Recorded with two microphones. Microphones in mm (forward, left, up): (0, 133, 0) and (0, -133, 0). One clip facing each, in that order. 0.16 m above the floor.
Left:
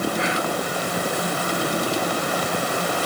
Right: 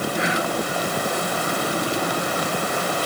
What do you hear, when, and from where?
0.1 s whispering: 20° right (ahead or behind), 1.2 m